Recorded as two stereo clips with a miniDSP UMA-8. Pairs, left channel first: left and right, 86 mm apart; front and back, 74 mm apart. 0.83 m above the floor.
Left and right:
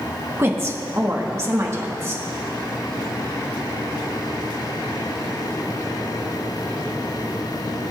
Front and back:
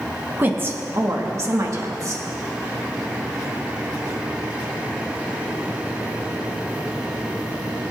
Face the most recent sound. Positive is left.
turn(degrees=-145)